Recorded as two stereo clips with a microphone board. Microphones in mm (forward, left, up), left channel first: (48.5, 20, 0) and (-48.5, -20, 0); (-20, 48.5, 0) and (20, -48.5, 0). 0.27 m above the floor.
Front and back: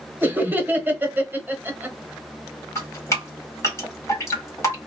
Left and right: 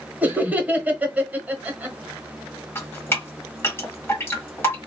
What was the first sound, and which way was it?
Laughter, 120° right.